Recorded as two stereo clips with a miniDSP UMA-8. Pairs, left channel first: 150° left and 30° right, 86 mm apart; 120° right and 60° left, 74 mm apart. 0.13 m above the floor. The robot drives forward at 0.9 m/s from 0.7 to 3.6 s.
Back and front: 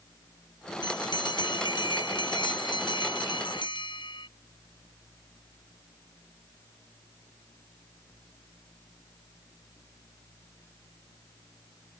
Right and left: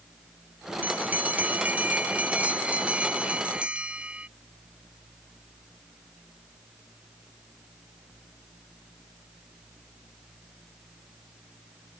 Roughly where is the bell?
Behind left.